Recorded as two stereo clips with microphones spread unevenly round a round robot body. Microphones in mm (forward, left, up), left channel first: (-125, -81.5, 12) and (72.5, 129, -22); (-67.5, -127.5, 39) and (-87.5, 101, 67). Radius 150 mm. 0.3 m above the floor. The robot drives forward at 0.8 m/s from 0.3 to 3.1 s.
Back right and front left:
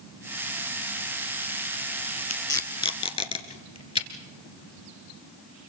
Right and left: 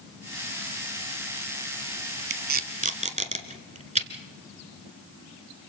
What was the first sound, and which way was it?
Tape being pulled, 145° left.